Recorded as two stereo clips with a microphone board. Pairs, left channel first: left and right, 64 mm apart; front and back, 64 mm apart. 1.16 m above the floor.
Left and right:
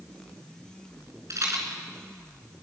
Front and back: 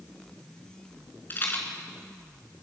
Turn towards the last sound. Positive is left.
turn(degrees=-55)